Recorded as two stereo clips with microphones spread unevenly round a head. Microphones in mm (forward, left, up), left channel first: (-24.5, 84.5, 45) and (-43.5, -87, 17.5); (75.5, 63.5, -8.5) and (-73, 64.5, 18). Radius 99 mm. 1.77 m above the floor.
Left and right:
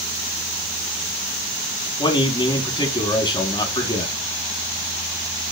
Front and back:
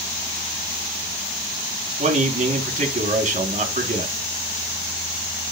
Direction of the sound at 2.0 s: 145° left.